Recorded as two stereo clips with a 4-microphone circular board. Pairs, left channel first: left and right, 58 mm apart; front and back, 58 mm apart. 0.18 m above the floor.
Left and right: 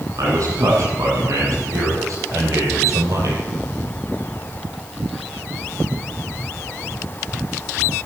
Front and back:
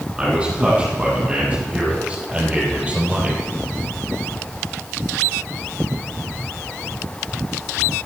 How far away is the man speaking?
About 7 m.